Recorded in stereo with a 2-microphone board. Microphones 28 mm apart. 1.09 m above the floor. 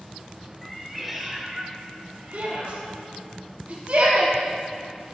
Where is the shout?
65° right (ahead or behind), 1.7 m.